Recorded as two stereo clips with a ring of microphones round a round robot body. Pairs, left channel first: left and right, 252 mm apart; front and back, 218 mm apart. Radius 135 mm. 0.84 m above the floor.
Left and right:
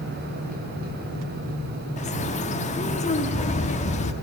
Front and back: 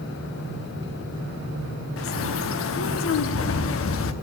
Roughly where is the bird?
Ahead left.